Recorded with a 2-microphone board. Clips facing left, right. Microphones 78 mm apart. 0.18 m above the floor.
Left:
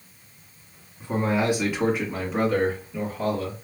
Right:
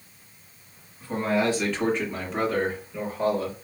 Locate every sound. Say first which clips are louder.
1.0 s a man speaking: even; 25° left (ahead or behind), 1.4 m; by 3.5 s 10° right (ahead or behind), 2 m